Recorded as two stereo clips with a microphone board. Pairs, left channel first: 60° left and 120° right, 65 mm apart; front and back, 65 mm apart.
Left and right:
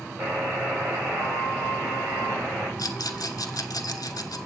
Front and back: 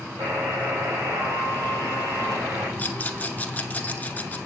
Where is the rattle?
65° left, 1.0 m.